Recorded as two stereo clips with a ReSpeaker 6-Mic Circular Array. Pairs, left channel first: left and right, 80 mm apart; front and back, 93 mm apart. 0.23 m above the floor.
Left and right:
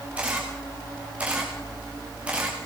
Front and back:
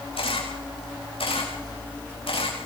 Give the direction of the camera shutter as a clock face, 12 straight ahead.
12 o'clock.